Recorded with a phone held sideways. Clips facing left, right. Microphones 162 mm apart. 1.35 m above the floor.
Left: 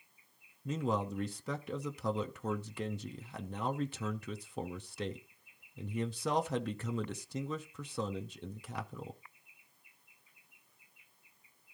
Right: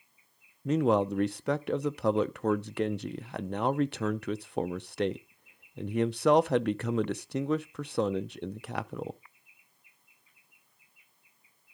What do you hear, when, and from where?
0.7 s a man speaking: 70° right (ahead or behind), 0.5 m